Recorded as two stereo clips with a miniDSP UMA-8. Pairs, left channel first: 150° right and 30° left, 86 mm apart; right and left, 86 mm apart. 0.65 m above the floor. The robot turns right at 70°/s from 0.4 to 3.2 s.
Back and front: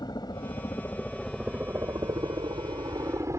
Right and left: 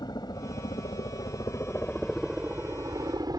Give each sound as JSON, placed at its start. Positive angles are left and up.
{"t": 0.0, "sound": "a helicopter", "azimuth_deg": -120}